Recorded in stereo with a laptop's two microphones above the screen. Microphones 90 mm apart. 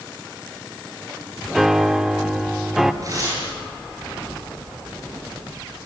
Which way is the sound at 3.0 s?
40° right (ahead or behind).